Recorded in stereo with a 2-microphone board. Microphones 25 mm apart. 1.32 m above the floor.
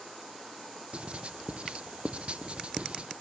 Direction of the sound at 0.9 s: 45° right (ahead or behind).